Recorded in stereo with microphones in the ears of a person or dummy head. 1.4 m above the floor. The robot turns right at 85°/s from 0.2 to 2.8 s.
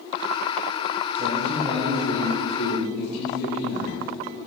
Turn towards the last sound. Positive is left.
turn(degrees=90)